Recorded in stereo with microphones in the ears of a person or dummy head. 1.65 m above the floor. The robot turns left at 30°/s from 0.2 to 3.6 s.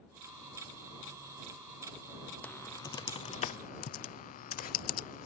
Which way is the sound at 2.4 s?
10° left (ahead or behind).